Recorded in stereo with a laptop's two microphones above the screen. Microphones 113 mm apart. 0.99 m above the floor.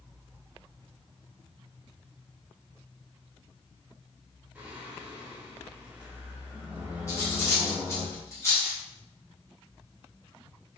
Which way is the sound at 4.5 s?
15° right (ahead or behind).